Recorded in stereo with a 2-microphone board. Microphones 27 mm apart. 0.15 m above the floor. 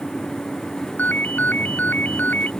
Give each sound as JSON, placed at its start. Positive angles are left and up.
{"t": 1.0, "sound": "a ringtone", "side_deg": 80}